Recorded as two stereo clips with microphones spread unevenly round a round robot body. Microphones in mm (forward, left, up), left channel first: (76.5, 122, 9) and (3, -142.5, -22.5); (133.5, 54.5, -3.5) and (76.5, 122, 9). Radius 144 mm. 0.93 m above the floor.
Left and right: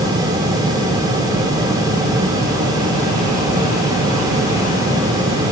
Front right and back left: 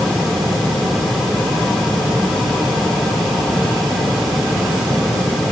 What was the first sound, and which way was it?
Only background noise.